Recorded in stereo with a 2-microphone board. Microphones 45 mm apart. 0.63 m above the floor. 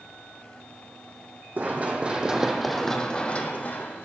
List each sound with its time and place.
1.6 s running footsteps: 40° right (ahead or behind), 1.4 m; by 4.0 s 50° left (ahead or behind), 1.6 m